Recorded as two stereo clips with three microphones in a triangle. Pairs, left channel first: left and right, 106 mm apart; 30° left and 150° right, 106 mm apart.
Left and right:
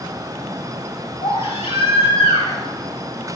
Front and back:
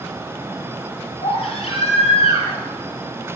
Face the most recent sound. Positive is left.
turn(degrees=65)